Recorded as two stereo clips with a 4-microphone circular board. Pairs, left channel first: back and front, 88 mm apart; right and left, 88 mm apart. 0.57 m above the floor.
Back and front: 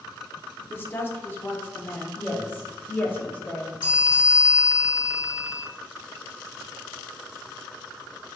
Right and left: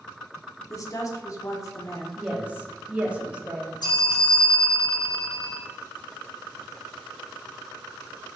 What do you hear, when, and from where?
0.7 s a woman speaking: 125° right, 0.8 m
2.2 s a woman speaking: 140° left, 0.8 m
3.8 s a bell: 75° right, 1.7 m